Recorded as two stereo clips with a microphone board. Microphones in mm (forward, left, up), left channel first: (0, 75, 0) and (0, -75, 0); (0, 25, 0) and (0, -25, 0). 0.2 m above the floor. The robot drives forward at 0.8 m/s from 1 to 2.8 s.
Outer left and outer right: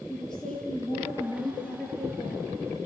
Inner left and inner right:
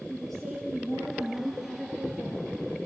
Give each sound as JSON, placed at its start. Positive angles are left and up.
{"t": 0.1, "sound": "a woman speaking", "side_deg": 5, "distance_m": 5.5}